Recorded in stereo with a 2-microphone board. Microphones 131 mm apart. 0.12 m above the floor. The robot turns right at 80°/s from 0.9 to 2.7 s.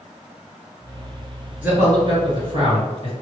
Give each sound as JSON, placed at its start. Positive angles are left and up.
{"t": 1.6, "sound": "a man speaking", "side_deg": -10, "distance_m": 1.9}